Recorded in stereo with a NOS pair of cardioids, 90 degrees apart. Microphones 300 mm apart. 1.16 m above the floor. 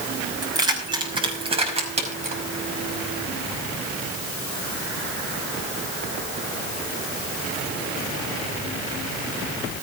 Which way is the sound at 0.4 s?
10° right.